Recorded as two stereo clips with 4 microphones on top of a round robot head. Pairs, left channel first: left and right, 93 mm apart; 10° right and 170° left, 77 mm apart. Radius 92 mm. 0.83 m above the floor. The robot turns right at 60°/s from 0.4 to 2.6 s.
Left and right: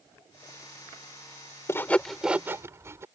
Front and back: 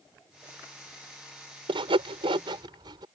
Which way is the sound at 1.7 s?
155° left.